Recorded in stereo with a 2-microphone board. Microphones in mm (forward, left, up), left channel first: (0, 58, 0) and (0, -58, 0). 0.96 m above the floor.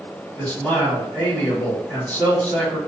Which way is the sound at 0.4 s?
15° left (ahead or behind).